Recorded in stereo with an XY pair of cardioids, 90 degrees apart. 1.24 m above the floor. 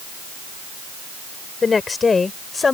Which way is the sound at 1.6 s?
40° left.